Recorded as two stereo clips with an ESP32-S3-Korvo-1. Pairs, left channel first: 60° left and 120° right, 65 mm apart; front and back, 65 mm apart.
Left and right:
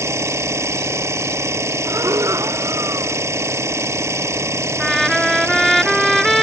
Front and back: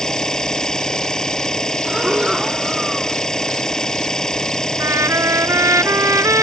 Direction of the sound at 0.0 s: 80° right.